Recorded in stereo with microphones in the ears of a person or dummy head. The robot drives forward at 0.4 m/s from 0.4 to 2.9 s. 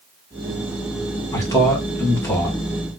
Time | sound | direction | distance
1.3 | a man speaking | 20° left (ahead or behind) | 1.5 m